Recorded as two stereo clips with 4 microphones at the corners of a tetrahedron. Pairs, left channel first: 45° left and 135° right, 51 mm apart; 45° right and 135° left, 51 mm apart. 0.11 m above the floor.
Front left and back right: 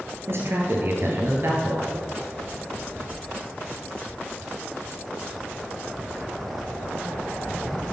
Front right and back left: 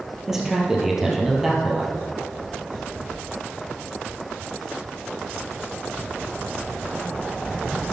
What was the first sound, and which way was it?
A man speaking, 145° right.